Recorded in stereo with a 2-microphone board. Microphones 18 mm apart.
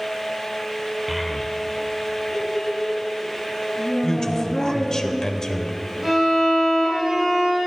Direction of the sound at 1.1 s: Centre (ahead or behind).